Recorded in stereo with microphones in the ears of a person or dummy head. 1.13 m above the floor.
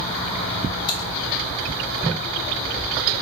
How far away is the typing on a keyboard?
About 3 m.